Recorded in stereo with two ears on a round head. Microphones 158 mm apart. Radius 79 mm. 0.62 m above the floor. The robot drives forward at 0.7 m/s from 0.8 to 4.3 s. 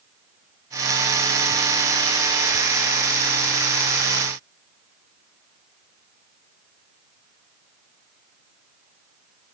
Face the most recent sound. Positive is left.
No sound to turn to.